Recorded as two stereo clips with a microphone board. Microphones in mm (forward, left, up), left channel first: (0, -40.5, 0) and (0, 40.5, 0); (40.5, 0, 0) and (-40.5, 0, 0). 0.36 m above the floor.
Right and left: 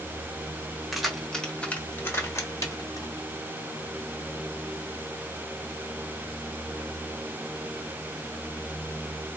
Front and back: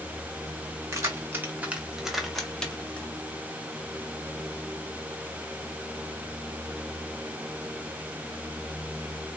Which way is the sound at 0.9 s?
175° left.